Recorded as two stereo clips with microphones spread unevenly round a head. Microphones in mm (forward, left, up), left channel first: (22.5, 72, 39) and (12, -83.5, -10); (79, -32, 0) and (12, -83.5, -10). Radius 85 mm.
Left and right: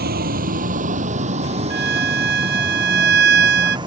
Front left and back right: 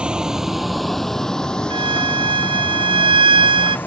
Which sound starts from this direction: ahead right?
A vehicle, at 0.0 s.